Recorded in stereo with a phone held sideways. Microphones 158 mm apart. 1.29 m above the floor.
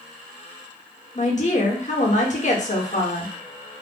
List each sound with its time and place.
1.1 s a woman speaking: 50° left (ahead or behind), 1.4 m